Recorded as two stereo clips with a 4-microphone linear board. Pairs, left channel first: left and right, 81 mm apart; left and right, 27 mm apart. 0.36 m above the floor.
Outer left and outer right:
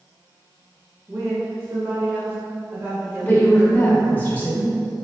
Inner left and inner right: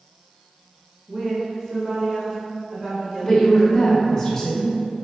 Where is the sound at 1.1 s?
30° right (ahead or behind), 0.9 m.